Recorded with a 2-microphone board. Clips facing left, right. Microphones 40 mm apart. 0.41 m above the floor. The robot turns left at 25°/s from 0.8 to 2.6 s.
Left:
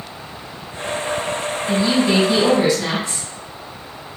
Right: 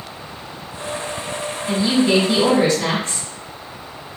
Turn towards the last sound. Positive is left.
turn(degrees=-40)  # may be behind; listen again after turning